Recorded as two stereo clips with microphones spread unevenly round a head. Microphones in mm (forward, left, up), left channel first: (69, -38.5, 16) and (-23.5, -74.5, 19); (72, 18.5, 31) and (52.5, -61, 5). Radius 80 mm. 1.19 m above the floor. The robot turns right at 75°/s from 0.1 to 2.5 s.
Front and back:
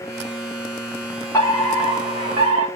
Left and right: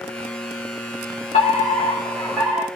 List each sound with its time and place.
1.3 s a fire alarm: 90° left, 5 m; by 2.6 s straight behind, 5 m